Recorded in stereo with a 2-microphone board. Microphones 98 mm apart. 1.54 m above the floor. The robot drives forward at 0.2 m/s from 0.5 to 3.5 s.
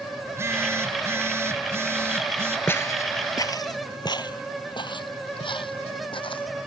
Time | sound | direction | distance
0.2 | a phone buzzing | 25° right (ahead or behind) | ?
2.7 | footsteps | 25° left (ahead or behind) | ?